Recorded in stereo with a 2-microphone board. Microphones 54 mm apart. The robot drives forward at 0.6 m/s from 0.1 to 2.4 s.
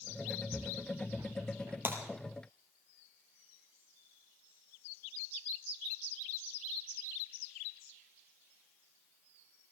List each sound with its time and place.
0.5 s footsteps: 55° right (ahead or behind), 1.0 m; by 1.8 s 80° right, 1.6 m
1.9 s breaking glass: 40° right (ahead or behind), 2.5 m